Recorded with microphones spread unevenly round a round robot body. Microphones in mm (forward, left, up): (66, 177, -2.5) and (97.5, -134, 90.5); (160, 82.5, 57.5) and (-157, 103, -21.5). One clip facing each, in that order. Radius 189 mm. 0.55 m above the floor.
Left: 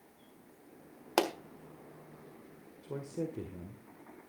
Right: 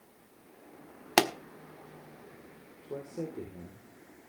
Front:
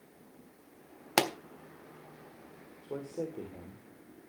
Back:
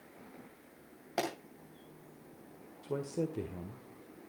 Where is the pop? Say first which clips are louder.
Right 3 dB, front 5 dB; 25° right, 1.4 m.